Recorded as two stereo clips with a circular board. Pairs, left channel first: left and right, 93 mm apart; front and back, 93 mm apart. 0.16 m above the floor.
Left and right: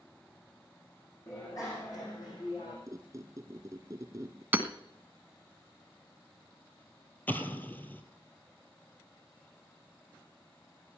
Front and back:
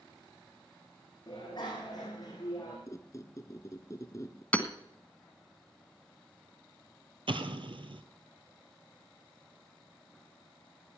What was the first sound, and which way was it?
A bicycle bell, 35° left.